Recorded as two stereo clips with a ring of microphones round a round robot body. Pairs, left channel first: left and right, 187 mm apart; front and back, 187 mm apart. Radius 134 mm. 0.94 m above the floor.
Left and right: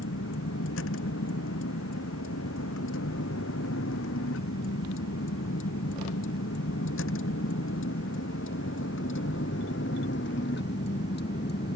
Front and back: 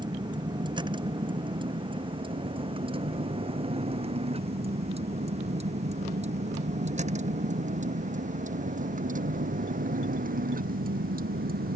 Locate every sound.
0.0 s a vehicle: 115° left; by 11.8 s 145° left